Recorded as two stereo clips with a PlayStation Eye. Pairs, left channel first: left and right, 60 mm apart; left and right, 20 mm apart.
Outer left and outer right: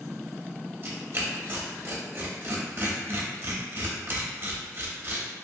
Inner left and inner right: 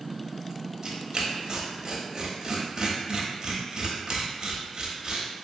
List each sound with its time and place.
0.8 s tearing paper: 40° right (ahead or behind), 0.5 m